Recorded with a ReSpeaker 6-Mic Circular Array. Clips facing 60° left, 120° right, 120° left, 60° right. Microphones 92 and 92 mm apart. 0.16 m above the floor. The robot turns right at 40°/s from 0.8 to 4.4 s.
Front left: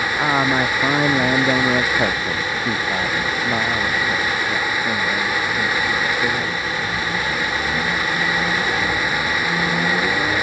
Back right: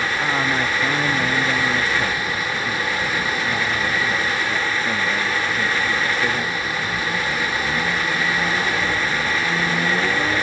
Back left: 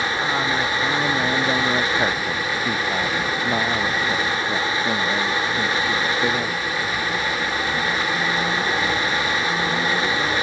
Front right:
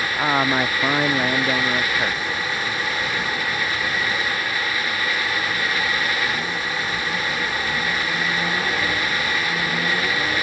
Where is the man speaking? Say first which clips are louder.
Front left 6 dB, front right 6 dB; straight ahead; by 6.6 s 145° left.